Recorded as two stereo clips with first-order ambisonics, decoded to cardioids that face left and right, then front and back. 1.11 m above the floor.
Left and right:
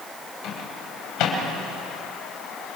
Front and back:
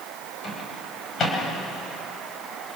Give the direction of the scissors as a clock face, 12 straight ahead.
I don't hear scissors.